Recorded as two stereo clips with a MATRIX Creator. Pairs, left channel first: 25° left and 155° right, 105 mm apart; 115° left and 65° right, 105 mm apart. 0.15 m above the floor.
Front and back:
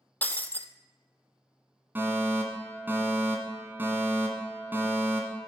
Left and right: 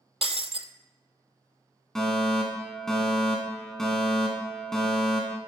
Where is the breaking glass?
50° right, 0.6 m.